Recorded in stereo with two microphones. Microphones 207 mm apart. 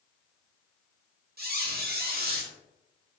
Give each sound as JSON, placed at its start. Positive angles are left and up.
{"t": 1.4, "sound": "a squeak", "side_deg": -50, "distance_m": 0.5}